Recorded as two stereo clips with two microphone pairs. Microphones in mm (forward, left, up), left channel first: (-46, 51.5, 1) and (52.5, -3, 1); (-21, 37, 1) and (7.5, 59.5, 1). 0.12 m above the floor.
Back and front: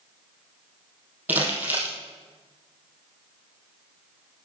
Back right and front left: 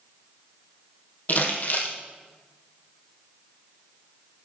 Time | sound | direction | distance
1.3 | crumpling | 105° right | 2.5 m